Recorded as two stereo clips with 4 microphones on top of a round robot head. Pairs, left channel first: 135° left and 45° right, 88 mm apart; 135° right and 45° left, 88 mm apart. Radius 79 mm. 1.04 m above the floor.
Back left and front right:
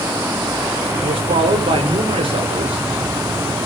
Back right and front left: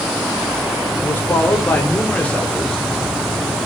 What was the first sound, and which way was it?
A man speaking, 70° right.